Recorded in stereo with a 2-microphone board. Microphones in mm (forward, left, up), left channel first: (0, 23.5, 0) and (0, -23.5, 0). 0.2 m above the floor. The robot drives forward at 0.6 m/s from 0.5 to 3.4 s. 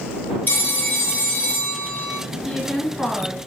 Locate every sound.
0.5 s a phone ringing: 45° left (ahead or behind), 3.5 m; by 2.2 s 35° left (ahead or behind), 4 m
2.5 s a woman speaking: 10° left (ahead or behind), 2.5 m; by 3.4 s 15° left (ahead or behind), 1.8 m